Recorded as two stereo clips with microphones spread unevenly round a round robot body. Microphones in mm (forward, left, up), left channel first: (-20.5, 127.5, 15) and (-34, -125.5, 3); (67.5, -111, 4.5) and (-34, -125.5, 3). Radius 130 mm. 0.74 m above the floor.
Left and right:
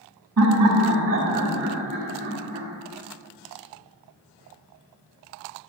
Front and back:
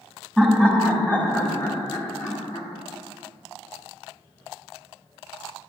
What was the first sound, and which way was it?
Laughter, 80° right.